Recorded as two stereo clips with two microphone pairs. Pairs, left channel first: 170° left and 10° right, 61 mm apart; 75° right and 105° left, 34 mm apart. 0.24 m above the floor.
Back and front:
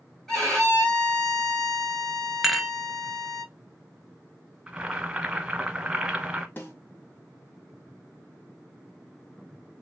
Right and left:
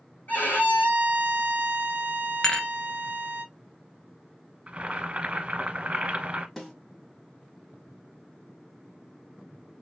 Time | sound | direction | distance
0.3 | a violin | 105° right | 2 m
2.4 | dishes clattering | 100° right | 0.6 m
4.7 | boiling | 60° left | 1.2 m
6.6 | a snare drum | 150° right | 1.7 m